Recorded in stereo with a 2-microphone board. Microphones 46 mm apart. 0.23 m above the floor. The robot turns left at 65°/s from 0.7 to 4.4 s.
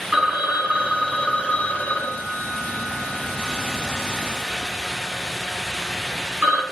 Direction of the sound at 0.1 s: 165° right.